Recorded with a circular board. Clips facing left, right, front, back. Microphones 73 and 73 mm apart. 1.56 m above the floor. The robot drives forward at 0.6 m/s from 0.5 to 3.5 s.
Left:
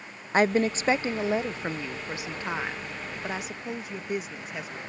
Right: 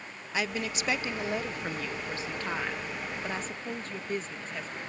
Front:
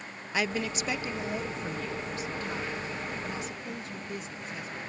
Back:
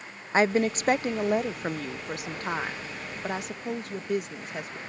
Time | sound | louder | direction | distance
0.3 | a woman speaking | left 10 dB, back 8 dB | 135° left | ?